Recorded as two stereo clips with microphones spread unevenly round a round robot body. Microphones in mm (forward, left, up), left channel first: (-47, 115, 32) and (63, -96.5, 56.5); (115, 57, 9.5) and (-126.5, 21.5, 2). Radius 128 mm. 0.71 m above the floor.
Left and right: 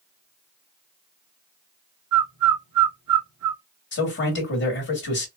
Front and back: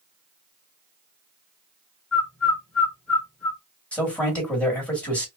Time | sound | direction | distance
2.1 | a bird | 80° right | 0.6 m
3.9 | a man speaking | 95° left | 1.6 m